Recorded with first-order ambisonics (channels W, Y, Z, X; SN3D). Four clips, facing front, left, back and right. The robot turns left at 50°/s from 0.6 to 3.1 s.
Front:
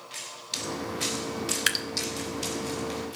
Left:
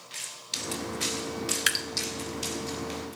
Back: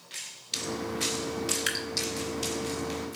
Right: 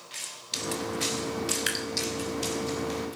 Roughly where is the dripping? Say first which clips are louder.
Left 8 dB, front 8 dB; ahead left.